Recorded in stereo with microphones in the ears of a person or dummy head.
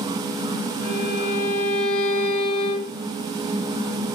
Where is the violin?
80° left, 3 m.